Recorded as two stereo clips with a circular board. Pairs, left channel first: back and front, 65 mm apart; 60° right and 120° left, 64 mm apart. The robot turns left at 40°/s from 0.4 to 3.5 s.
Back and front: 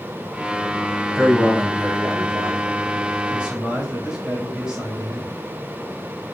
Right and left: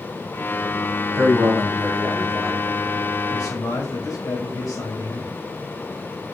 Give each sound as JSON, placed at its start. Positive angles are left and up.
{"t": 1.1, "sound": "a man speaking", "azimuth_deg": 80, "distance_m": 4.0}
{"t": 3.3, "sound": "a man speaking", "azimuth_deg": -70, "distance_m": 4.5}